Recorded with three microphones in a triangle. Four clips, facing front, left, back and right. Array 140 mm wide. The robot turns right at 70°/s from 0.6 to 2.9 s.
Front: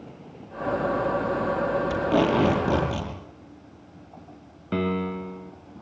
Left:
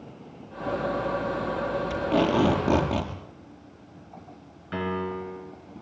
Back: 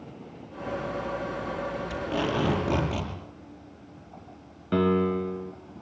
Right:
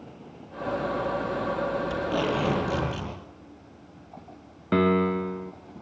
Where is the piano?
95° right, 3 m.